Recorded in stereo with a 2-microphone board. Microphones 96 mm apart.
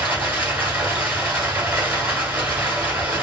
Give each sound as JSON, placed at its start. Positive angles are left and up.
{"t": 0.0, "sound": "running water", "side_deg": -20, "distance_m": 1.4}